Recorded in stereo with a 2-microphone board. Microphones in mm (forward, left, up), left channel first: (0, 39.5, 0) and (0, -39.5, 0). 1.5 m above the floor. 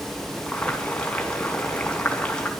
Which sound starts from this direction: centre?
Boiling, at 0.5 s.